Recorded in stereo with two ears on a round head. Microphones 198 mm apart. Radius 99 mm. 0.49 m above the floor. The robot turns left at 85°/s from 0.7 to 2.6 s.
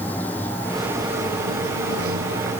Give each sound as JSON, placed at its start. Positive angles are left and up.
{"t": 0.0, "sound": "running water", "azimuth_deg": 10}